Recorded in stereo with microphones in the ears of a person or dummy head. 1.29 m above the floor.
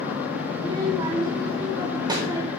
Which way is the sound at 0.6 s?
25° right (ahead or behind).